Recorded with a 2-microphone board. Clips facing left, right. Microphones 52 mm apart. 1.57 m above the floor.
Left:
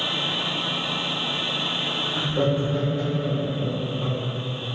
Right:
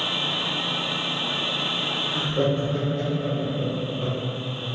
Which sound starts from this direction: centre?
Laughter, at 2.1 s.